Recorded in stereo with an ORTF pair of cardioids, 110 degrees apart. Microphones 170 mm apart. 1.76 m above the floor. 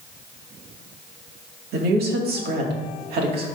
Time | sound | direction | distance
1.7 | a woman speaking | 70° right | 2 m